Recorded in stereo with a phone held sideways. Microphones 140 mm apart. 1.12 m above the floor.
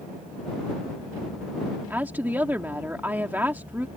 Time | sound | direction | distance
1.9 | a woman speaking | 15° right (ahead or behind) | ?